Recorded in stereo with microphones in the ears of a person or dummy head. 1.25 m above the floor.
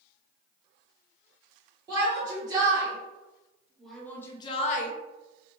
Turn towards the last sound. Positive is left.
turn(degrees=45)  # may be behind; listen again after turning